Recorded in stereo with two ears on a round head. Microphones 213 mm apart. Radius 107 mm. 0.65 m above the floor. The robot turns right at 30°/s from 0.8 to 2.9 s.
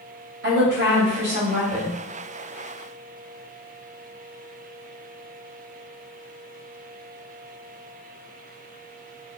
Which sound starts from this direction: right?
A woman speaking, at 0.4 s.